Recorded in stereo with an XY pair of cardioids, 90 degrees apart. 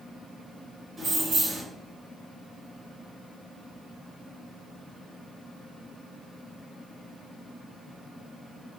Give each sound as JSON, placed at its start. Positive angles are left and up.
{"t": 1.0, "sound": "keys jangling", "azimuth_deg": -45, "distance_m": 1.7}